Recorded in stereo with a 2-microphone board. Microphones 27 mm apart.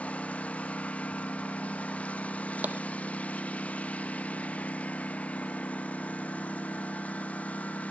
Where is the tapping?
60° right (ahead or behind).